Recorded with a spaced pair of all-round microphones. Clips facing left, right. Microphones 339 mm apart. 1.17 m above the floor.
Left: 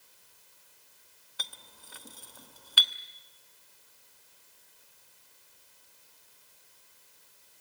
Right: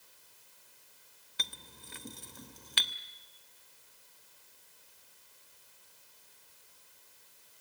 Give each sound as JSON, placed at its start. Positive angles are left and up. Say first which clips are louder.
{"t": 1.4, "sound": "a clink", "louder": "right 2 dB", "side_deg": -30, "distance_m": 0.9}